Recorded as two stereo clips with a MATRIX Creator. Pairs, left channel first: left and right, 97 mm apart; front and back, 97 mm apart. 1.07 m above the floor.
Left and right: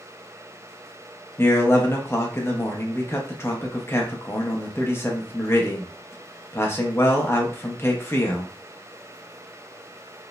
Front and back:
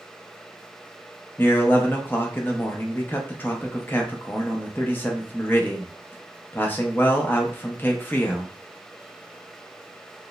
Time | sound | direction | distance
1.4 | a man speaking | 55° left | 0.6 m